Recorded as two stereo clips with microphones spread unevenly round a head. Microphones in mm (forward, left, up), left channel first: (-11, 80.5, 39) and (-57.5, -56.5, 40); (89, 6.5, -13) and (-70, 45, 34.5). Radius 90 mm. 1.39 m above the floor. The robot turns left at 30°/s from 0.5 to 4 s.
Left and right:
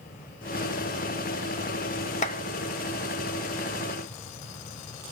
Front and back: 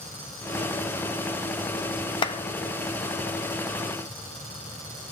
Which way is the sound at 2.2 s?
55° left.